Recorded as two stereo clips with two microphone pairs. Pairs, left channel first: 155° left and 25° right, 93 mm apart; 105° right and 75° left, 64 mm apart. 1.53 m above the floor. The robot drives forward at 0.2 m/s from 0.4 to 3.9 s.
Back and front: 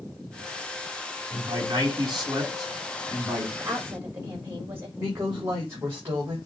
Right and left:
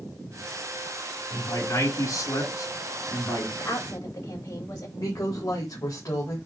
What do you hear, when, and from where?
1.3 s a man speaking: 70° right, 5.5 m; by 3.5 s 75° right, 5 m
3.6 s a woman speaking: 90° right, 4.5 m
5.0 s a woman speaking: 90° right, 3.5 m